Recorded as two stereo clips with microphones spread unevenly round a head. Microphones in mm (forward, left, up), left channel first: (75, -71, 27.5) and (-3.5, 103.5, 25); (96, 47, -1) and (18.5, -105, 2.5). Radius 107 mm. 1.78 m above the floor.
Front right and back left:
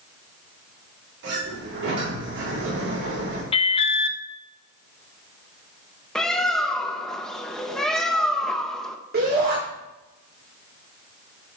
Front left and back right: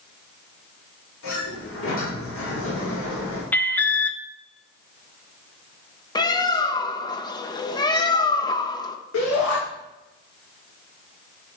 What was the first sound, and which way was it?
A sliding door, 95° left.